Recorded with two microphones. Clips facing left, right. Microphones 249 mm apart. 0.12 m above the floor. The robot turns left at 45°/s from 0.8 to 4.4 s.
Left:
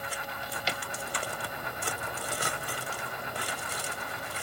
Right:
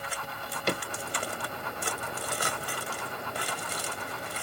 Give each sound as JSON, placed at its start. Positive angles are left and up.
{"t": 0.2, "sound": "a drawer", "side_deg": -55}